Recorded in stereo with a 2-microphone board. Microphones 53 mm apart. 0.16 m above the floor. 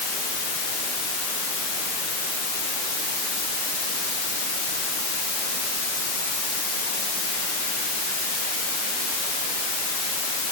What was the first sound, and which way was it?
Only background noise.